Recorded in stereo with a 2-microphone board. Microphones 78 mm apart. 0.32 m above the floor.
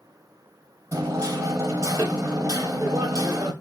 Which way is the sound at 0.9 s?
50° right (ahead or behind).